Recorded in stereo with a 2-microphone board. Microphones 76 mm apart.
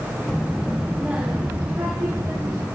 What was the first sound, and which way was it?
A child speaking, 5° left (ahead or behind).